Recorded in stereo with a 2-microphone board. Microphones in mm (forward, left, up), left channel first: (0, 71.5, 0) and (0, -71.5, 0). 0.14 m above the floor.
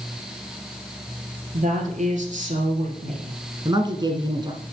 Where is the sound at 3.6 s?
35° right (ahead or behind), 1.3 m.